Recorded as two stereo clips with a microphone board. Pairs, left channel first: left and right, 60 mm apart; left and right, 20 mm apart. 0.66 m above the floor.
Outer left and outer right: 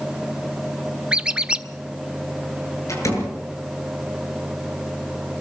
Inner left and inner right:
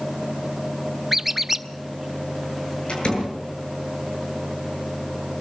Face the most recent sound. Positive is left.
turn(degrees=60)  # may be behind; listen again after turning